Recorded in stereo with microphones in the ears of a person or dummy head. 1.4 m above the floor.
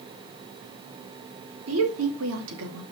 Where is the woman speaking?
90° right, 3 m; by 2.8 s 80° right, 2.5 m.